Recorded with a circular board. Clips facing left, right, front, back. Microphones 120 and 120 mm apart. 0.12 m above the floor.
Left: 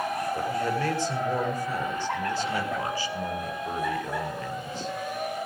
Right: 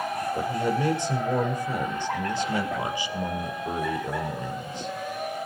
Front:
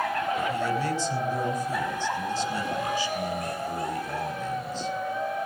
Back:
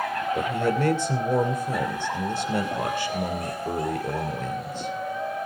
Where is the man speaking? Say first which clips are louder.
Right 3 dB, back 3 dB; 160° right, 2.5 m.